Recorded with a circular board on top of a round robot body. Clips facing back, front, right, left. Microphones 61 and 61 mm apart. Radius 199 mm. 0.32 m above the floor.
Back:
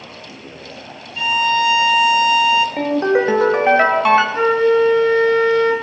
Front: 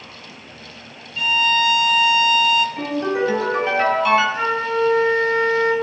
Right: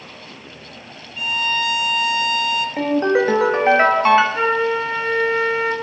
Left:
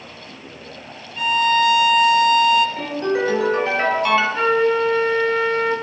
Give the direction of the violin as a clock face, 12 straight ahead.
8 o'clock.